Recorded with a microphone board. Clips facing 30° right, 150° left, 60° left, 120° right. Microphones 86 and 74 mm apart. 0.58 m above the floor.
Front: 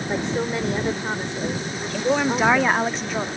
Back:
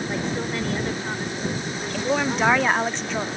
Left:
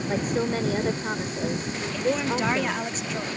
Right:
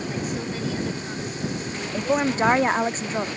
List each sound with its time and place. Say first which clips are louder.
0.1 s a woman speaking: front 7 dB, left 4 dB; 30° left
1.9 s a woman speaking: front 2 dB, right 3 dB; 115° right